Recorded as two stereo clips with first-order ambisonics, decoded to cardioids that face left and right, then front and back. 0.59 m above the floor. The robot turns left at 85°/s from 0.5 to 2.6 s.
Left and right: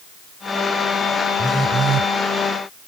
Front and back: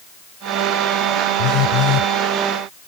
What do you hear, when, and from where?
1.4 s a phone buzzing: 10° left; by 2.1 s 50° right